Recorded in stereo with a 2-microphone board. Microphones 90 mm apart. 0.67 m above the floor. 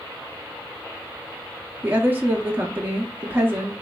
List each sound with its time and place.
1.8 s a woman speaking: 20° right (ahead or behind), 0.6 m